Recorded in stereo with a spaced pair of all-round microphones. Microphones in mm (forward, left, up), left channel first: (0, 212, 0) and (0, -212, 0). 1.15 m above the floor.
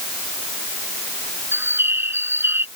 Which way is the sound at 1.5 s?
5° right (ahead or behind).